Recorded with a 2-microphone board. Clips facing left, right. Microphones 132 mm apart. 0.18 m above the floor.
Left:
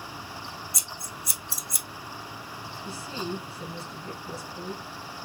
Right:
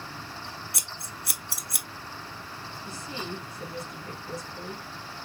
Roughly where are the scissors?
Right.